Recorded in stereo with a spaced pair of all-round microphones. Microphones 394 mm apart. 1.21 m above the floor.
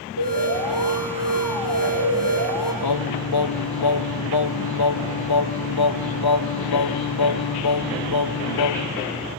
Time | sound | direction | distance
0.2 | an alarm | 80° right | 7 m
2.8 | singing | 70° left (ahead or behind) | 0.7 m